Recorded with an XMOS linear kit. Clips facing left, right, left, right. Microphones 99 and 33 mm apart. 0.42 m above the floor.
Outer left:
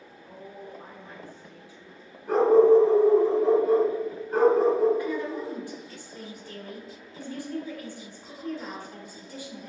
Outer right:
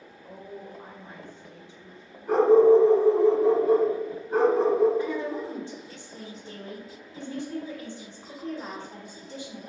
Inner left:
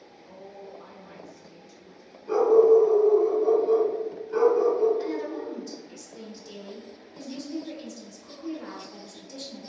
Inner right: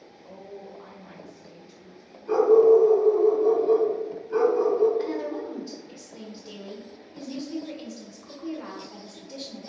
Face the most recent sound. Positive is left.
turn(degrees=-25)  # may be behind; listen again after turning